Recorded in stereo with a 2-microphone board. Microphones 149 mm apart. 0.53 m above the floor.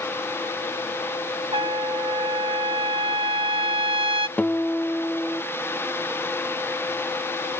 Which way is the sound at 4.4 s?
10° left (ahead or behind).